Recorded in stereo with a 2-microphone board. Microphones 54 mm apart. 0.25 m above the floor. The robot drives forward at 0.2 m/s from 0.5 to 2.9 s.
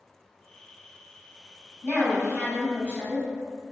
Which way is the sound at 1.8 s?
30° left (ahead or behind).